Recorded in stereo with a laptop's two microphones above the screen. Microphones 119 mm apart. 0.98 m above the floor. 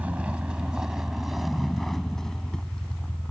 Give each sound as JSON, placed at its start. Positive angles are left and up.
{"t": 0.0, "sound": "a vehicle", "side_deg": -15}